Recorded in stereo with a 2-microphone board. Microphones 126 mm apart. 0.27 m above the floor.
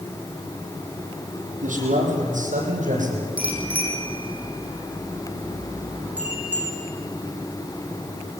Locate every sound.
1.6 s a man speaking: 80° right, 9 m
3.4 s a bicycle bell: 10° right (ahead or behind), 8 m